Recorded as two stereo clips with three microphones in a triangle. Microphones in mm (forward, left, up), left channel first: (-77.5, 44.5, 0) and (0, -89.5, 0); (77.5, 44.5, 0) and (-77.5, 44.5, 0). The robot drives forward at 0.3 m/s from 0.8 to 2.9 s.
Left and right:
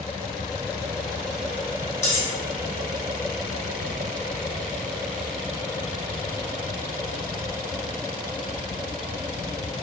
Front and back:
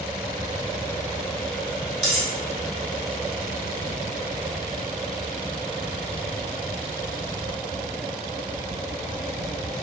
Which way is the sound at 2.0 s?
175° right.